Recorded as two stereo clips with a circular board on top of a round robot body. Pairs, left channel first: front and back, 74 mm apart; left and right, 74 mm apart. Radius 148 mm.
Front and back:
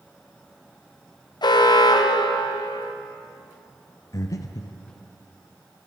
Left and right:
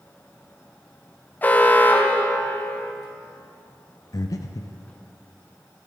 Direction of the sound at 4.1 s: 45° left.